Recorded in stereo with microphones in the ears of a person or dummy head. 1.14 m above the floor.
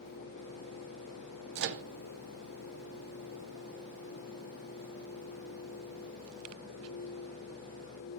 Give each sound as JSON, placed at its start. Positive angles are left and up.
{"t": 1.6, "sound": "a microwave", "side_deg": -65, "distance_m": 0.7}